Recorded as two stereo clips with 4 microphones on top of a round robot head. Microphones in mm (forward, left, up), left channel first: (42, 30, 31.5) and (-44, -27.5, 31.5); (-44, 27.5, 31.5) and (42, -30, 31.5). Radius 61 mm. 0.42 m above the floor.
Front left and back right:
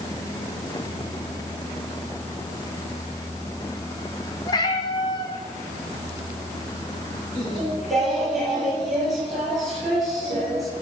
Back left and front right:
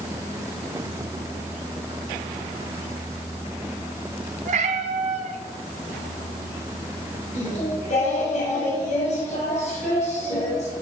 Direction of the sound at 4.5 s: 20° right.